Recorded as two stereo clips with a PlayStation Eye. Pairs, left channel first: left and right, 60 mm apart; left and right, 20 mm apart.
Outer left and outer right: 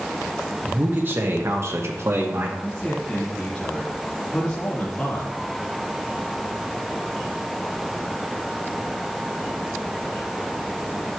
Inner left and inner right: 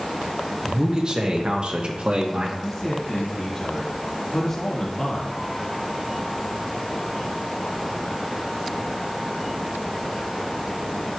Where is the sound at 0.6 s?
30° right (ahead or behind), 1.8 m; by 2.5 s 45° right (ahead or behind), 1.4 m.